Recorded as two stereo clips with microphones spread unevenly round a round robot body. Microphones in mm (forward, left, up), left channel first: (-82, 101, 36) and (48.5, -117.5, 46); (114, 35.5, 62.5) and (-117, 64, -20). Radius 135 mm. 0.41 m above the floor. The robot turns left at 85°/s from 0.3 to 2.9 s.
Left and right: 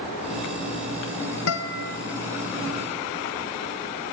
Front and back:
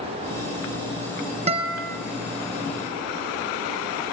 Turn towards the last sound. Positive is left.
turn(degrees=-5)